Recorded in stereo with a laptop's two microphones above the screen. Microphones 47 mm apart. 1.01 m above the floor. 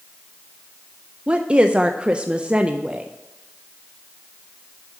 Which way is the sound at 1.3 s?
25° right (ahead or behind).